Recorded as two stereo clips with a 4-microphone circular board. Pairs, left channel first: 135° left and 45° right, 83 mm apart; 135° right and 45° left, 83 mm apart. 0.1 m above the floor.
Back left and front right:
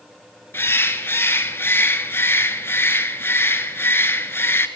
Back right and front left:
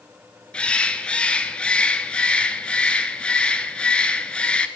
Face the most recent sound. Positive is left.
turn(degrees=160)